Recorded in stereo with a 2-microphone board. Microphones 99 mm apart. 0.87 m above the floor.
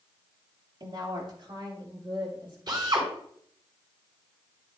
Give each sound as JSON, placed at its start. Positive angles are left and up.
{"t": 0.8, "sound": "a woman speaking", "side_deg": -50, "distance_m": 2.5}
{"t": 2.7, "sound": "a drill", "side_deg": -50, "distance_m": 4.5}